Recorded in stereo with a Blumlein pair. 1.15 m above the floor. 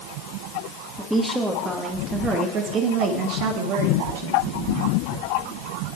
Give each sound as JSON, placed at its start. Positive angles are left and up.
{"t": 1.0, "sound": "a woman speaking", "azimuth_deg": 0, "distance_m": 1.7}